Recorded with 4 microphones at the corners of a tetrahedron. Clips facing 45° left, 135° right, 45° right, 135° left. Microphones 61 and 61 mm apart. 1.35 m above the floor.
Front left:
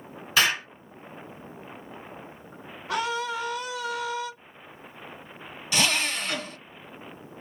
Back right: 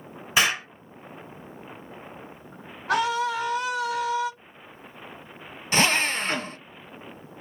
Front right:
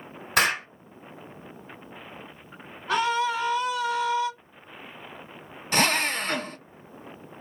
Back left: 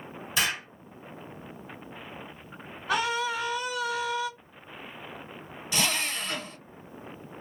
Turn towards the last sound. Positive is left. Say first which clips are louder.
# back right 4 dB, front right 6 dB
turn(degrees=-80)